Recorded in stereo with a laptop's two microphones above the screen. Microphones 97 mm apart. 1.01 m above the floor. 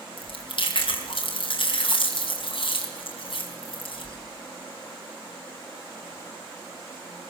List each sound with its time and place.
0.2 s chewing: 65° left (ahead or behind), 4 m